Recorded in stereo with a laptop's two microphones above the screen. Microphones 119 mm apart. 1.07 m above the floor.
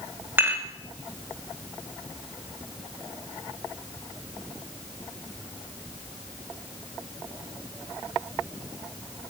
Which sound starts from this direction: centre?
Dishes clattering, at 0.4 s.